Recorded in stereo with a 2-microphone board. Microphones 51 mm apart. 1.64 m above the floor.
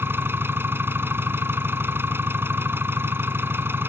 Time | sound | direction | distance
0.0 | an engine running | 50° right (ahead or behind) | ?